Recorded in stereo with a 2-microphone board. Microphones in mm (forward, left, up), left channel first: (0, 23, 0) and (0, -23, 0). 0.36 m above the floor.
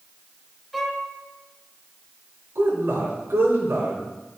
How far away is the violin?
About 1.0 m.